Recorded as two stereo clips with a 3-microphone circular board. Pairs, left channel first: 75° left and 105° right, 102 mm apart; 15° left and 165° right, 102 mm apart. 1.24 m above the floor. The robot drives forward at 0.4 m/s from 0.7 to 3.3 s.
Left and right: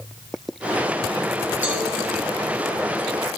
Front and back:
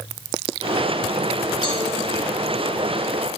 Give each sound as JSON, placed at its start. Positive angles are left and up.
{"t": 1.6, "sound": "a cowbell", "azimuth_deg": -30, "distance_m": 1.0}